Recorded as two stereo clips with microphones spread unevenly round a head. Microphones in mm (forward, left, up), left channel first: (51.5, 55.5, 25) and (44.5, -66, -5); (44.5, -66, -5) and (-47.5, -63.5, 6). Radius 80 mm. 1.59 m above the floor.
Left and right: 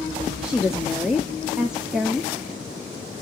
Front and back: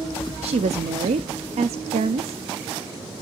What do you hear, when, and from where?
0.4 s a woman speaking: 175° right, 0.7 m